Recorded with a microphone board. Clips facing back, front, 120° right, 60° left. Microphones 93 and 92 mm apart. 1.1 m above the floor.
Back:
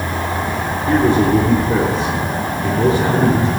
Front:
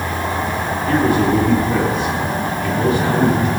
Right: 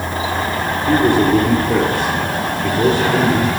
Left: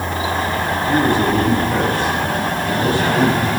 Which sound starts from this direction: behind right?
A man speaking, at 0.9 s.